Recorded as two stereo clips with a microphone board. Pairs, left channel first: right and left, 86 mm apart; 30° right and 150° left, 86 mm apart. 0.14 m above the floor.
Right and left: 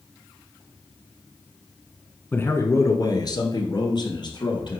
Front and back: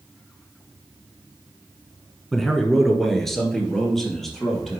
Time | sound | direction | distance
2.3 | a man speaking | 115° right | 1.2 m